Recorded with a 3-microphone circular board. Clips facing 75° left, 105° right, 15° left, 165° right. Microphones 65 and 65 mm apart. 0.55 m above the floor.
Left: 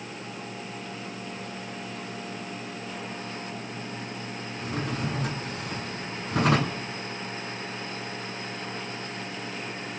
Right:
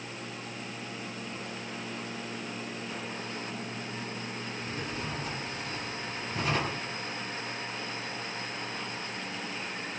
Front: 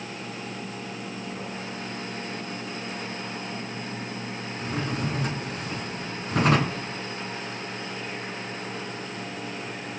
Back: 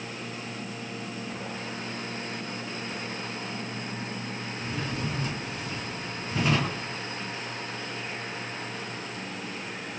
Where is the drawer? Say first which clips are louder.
Left 8 dB, front 4 dB; 50° left, 3.5 m.